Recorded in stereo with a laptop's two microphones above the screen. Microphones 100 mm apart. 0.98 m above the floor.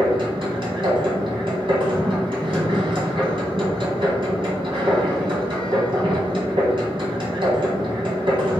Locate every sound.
0.0 s a machine running: 60° right (ahead or behind), 1.7 m